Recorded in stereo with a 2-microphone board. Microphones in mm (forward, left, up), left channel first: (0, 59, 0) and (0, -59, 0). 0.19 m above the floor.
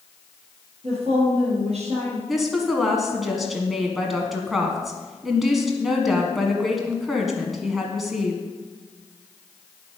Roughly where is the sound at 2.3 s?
Centre.